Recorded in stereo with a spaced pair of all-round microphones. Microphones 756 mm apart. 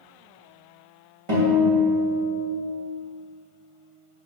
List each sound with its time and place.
1.3 s a guitar: 40° right (ahead or behind), 2.5 m